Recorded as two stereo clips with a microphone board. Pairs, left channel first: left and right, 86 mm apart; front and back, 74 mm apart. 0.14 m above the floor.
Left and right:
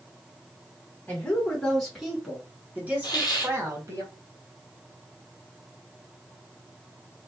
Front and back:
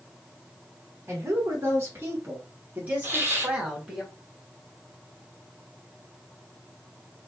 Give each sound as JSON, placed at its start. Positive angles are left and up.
{"t": 1.1, "sound": "a woman speaking", "azimuth_deg": 160, "distance_m": 1.6}
{"t": 3.0, "sound": "a hiss", "azimuth_deg": 125, "distance_m": 1.1}